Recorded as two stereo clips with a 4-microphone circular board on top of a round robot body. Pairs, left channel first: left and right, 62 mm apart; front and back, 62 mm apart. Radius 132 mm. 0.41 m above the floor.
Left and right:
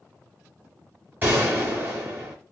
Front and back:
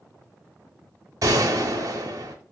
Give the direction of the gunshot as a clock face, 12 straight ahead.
5 o'clock.